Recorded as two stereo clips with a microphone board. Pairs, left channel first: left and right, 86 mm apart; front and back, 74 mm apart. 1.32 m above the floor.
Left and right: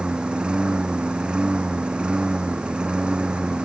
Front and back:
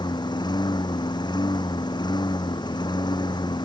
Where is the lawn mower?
10° right.